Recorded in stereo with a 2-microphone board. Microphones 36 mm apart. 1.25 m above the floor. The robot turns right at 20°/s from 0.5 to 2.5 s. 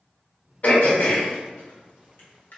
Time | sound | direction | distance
0.6 | throat clearing | 50° left (ahead or behind) | 1.1 m